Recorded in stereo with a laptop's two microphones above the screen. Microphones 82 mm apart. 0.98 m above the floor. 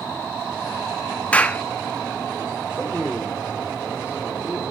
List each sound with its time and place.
1.3 s a clap: 15° left (ahead or behind), 0.9 m
2.7 s a man speaking: 15° right (ahead or behind), 2.5 m